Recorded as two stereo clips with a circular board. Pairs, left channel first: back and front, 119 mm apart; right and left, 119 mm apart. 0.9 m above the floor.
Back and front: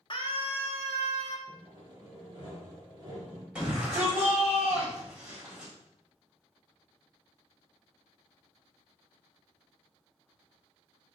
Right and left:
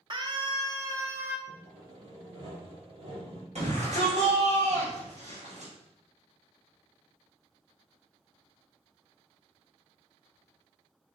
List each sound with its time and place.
0.1 s a scream: 135° left, 1.4 m; by 1.4 s 165° left, 1.6 m
1.5 s sawing: 55° left, 3.5 m
3.5 s a shout: 80° left, 4 m